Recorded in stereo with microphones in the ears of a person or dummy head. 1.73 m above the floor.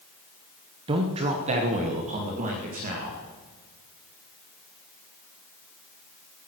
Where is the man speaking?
25° right (ahead or behind), 0.9 m; by 3.2 s 40° right (ahead or behind), 2.5 m.